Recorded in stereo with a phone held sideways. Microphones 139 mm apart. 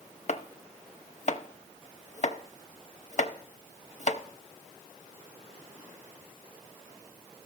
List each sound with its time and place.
0.3 s chopping: 55° left (ahead or behind), 0.6 m